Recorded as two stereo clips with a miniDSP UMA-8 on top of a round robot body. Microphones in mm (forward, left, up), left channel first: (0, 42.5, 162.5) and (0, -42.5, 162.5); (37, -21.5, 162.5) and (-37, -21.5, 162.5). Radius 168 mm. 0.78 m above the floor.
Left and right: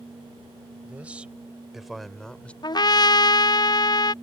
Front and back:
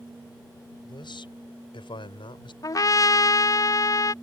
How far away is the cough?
No cough in this recording.